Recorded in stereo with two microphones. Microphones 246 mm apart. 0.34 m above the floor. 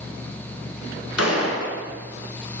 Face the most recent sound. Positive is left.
turn(degrees=85)